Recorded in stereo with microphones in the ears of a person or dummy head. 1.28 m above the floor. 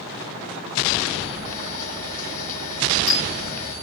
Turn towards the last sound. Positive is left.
turn(degrees=45)  # may be behind; listen again after turning